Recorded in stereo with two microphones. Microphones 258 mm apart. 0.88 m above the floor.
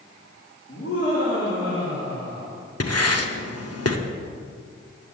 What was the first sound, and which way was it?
Laughter, 55° left (ahead or behind).